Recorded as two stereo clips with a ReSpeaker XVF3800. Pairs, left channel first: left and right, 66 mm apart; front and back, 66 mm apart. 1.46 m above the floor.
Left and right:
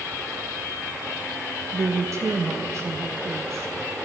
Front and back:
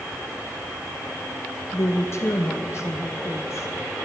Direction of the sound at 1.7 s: 50° right.